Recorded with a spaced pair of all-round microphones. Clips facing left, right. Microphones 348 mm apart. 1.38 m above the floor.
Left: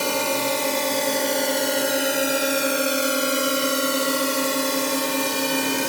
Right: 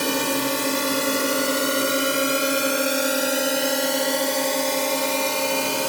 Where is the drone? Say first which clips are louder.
Right 1 dB; 25° right (ahead or behind); by 5.9 s 30° left (ahead or behind).